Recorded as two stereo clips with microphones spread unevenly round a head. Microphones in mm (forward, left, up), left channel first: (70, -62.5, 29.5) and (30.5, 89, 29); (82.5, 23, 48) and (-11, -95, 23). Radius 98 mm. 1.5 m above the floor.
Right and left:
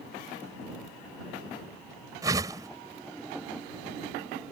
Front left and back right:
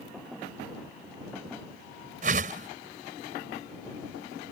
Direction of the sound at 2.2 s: Straight behind.